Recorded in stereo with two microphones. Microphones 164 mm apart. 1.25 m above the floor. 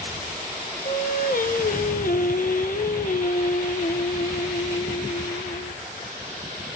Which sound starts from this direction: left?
Singing, at 0.8 s.